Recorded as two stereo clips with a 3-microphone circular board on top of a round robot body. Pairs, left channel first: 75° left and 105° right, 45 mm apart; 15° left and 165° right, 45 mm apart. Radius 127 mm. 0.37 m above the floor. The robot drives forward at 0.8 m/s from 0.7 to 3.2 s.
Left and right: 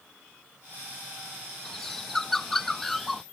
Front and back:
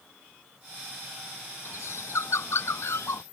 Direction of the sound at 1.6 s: 10° right.